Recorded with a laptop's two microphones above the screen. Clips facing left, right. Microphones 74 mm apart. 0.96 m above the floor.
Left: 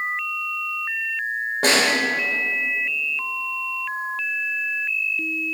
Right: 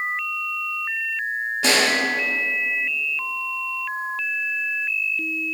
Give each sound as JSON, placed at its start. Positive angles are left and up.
{"t": 1.6, "sound": "a snare drum", "side_deg": 50, "distance_m": 4.0}